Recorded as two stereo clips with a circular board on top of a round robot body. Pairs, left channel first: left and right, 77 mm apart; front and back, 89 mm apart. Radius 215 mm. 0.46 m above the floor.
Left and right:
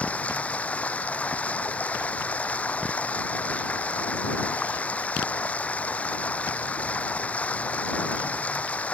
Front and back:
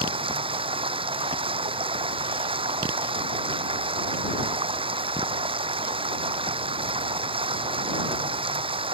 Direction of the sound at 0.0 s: 165° left.